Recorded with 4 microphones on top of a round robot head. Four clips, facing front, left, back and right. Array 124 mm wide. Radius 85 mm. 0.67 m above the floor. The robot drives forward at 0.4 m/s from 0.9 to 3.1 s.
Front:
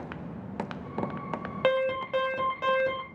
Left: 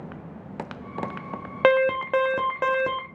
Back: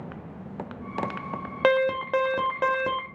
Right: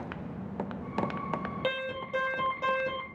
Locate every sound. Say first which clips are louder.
1.6 s an alarm: left 18 dB, back 4 dB; 105° left, 1.0 m; by 3.1 s 135° left, 1.2 m